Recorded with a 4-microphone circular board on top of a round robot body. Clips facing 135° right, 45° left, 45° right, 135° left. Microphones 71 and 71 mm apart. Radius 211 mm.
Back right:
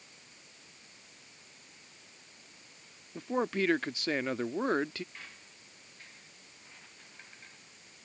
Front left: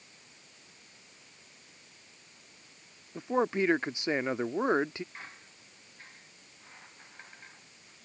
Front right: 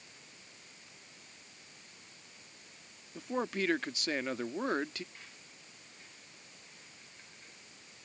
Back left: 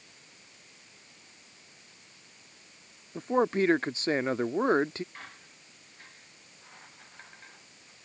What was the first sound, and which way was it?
A man speaking, 105° left.